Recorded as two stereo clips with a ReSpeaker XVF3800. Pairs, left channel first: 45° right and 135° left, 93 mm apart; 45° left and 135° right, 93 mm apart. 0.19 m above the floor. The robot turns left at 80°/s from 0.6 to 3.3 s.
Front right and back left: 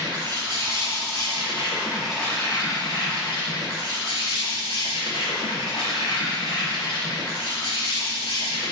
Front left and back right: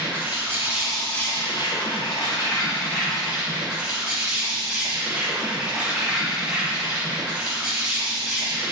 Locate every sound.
0.0 s an insect: 160° left, 4.5 m; by 8.7 s 55° right, 4.5 m